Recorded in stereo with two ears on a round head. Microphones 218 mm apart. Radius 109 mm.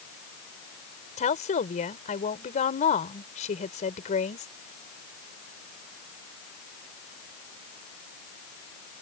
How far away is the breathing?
I don't hear breathing.